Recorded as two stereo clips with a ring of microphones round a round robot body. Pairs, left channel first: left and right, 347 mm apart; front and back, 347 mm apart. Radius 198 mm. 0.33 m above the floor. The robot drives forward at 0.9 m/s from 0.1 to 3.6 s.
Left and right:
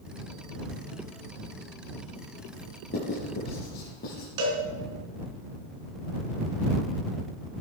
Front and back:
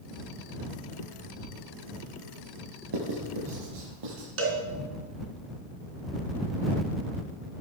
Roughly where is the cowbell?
Behind right.